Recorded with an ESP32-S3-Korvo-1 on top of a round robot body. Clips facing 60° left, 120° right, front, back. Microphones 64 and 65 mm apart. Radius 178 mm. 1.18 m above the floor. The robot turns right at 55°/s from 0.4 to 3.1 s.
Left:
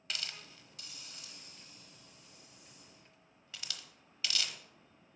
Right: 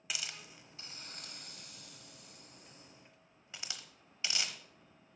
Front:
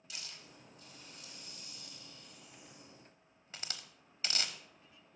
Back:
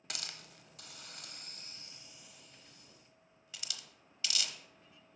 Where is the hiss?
160° left, 1.1 m; by 4.6 s 55° right, 1.1 m.